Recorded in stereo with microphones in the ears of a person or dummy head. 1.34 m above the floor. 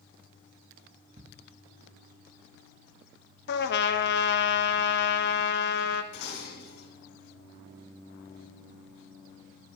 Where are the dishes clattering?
55° left (ahead or behind), 4.5 m.